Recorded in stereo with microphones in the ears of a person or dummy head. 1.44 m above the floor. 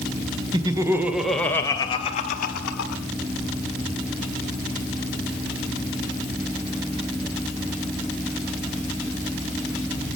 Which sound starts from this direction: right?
Laughter, at 0.5 s.